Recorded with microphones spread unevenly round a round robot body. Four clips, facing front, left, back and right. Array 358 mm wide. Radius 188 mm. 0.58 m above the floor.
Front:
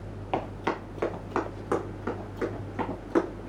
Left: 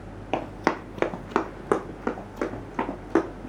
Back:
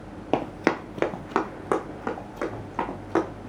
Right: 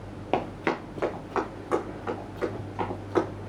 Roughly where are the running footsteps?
Behind.